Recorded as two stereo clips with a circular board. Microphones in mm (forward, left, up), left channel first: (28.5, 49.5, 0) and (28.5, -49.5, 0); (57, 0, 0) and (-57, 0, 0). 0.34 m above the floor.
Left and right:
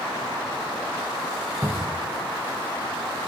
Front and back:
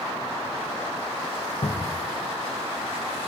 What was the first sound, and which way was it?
A cupboard door, 25° right.